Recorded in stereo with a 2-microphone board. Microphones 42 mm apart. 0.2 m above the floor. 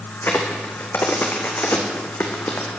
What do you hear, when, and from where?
0.2 s a crack: 60° left (ahead or behind), 2.5 m